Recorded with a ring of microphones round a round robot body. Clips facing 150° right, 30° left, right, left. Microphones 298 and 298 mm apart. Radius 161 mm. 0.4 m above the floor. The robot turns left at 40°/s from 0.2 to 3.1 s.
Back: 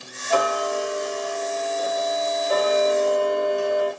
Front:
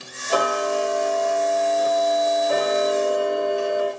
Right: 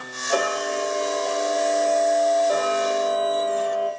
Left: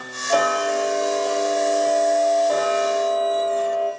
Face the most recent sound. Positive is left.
turn(degrees=-30)